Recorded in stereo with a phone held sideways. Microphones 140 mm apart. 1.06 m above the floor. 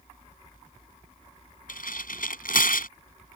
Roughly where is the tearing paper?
Left.